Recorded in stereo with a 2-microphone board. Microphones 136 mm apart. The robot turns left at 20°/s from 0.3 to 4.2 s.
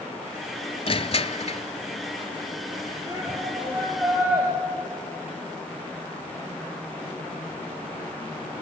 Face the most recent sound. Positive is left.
turn(degrees=-10)  # may be behind; listen again after turning